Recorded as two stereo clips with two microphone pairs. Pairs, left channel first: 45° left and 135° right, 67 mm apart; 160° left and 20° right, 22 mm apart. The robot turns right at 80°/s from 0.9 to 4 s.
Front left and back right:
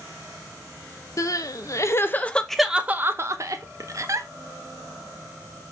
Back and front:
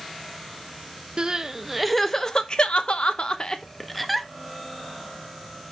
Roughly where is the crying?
Ahead.